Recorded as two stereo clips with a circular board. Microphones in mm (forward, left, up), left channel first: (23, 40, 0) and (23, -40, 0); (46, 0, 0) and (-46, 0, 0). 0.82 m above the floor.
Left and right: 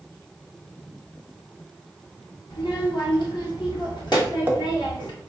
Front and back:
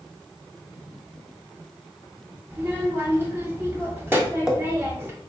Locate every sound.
2.5 s a child speaking: 115° left, 0.9 m
4.1 s tapping: 110° right, 0.6 m